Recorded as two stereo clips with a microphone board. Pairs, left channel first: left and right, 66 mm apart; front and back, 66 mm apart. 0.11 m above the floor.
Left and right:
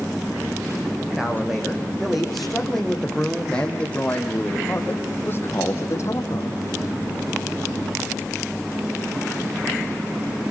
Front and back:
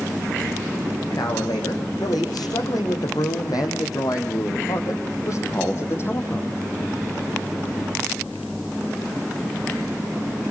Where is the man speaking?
5° right, 5.5 m; by 6.6 s 55° left, 3.5 m.